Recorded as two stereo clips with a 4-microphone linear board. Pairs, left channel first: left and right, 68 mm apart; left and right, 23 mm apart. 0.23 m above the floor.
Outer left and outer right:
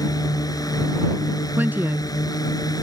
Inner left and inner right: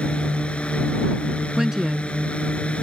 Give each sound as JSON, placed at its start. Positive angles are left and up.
{"t": 0.0, "sound": "a drone", "side_deg": 65}
{"t": 1.6, "sound": "a woman speaking", "side_deg": -25}